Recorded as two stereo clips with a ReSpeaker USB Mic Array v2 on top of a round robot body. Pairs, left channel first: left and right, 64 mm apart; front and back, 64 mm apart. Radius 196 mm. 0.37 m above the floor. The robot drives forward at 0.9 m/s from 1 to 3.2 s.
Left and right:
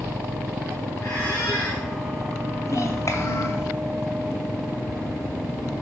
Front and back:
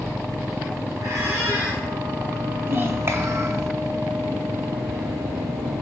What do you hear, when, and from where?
1.0 s a squeak: 140° left, 7 m; by 1.8 s 145° left, 7.5 m
2.7 s a child speaking: 125° left, 2 m; by 3.7 s 135° left, 2.5 m